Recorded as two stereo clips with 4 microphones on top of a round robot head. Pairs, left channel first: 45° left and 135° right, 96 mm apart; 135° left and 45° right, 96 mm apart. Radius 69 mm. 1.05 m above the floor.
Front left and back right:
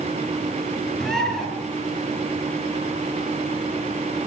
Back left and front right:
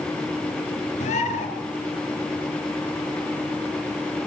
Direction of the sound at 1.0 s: 130° left.